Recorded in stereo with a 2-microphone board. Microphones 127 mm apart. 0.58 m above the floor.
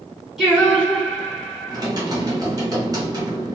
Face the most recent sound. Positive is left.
turn(degrees=-30)  # may be behind; listen again after turning